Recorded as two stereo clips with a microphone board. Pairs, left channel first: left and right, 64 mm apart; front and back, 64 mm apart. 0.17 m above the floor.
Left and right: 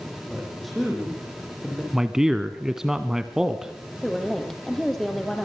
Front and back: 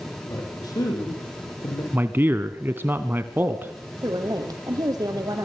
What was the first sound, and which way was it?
A man speaking, straight ahead.